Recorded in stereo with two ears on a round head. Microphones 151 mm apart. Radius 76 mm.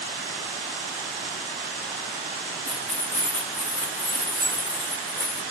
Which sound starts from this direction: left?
Keys jangling, at 2.7 s.